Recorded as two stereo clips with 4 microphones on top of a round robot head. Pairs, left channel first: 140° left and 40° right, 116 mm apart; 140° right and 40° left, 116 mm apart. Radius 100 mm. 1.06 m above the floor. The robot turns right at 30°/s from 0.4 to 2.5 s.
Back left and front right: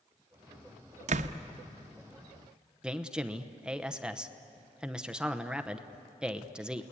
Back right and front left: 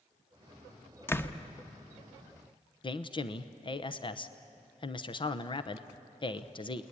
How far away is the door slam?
About 0.9 m.